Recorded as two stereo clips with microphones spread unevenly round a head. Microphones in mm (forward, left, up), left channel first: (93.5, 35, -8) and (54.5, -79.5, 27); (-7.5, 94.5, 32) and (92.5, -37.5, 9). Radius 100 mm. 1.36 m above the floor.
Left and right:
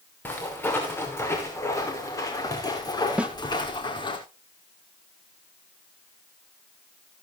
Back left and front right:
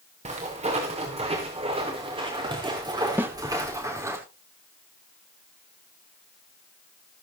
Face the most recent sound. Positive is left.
turn(degrees=-135)